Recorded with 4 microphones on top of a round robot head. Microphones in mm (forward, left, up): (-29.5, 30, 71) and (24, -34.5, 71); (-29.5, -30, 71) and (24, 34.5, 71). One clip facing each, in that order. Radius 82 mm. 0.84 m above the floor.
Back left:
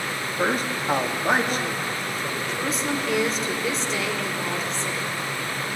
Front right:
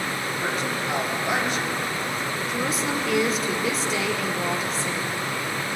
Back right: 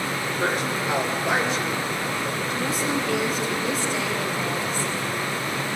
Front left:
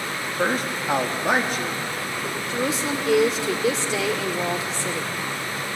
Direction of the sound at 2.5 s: 35° left.